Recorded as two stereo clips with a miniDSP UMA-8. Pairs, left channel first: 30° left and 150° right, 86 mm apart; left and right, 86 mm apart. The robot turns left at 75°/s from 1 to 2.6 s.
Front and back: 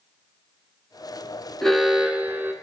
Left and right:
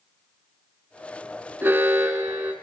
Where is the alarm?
50° right, 0.9 m; by 2.5 s 120° right, 0.9 m.